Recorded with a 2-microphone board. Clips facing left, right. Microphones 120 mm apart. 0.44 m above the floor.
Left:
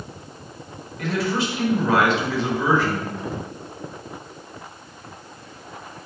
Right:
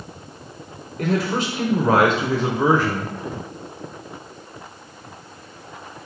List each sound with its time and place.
1.0 s a man speaking: 50° right (ahead or behind), 1.3 m